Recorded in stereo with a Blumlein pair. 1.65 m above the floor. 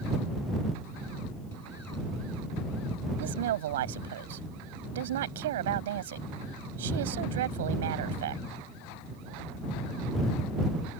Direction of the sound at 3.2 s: 60° right.